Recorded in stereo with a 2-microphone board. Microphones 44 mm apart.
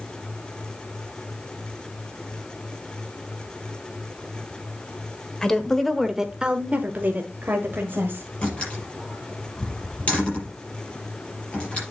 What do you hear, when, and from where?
5.4 s a woman speaking: 15° left (ahead or behind), 1.3 m; by 8.3 s 55° right (ahead or behind), 2 m
8.4 s a door slam: 30° left (ahead or behind), 5.5 m